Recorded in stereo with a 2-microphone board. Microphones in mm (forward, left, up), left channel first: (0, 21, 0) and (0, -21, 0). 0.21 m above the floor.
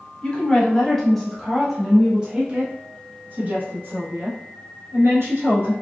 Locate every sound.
0.2 s a woman speaking: 25° left (ahead or behind), 1.5 m; by 5.7 s 65° right (ahead or behind), 2.5 m